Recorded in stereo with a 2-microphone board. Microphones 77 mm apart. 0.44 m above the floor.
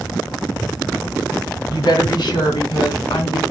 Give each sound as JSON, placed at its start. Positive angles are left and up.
{"t": 1.7, "sound": "a woman speaking", "side_deg": 65, "distance_m": 2.5}